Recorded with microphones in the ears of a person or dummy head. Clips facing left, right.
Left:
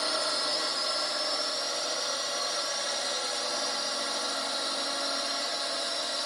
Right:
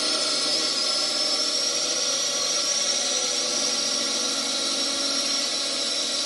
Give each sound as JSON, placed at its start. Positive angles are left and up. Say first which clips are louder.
{"t": 0.0, "sound": "a drone", "louder": "right 2 dB", "side_deg": -40}